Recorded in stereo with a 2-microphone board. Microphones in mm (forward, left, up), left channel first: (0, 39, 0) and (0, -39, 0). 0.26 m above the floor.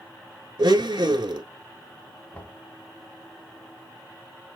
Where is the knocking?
20° left (ahead or behind), 1.7 m.